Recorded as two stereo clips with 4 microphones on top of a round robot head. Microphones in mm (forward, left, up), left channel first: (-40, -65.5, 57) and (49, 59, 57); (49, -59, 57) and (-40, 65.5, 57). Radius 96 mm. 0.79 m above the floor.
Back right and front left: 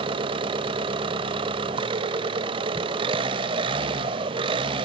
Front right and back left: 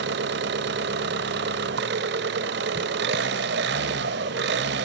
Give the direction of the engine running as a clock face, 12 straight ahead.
8 o'clock.